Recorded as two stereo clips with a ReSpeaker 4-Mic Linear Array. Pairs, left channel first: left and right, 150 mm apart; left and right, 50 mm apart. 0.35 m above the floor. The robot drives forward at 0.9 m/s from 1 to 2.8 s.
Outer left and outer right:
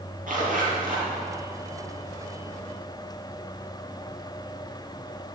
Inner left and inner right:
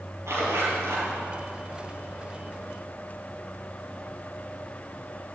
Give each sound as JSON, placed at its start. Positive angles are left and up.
{"t": 0.3, "sound": "a zipper", "side_deg": -65, "distance_m": 6.0}